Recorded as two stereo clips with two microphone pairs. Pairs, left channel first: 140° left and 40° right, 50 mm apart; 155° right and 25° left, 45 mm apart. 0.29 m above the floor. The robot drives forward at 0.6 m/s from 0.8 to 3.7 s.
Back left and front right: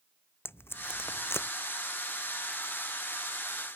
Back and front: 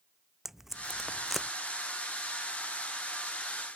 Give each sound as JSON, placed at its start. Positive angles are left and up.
{"t": 0.5, "sound": "tape being pulled", "azimuth_deg": 105}